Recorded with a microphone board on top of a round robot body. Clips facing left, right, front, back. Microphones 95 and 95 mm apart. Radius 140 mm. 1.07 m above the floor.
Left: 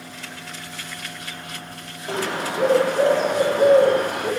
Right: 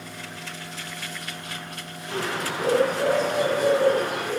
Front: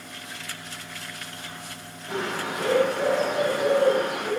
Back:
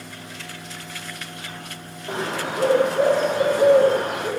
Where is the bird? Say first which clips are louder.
Left 3 dB, back 3 dB; 135° left, 6 m.